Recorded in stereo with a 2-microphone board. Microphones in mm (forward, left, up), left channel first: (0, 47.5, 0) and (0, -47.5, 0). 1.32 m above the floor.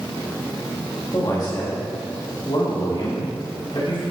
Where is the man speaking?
40° left (ahead or behind), 1.8 m; by 4.0 s 70° left (ahead or behind), 3 m.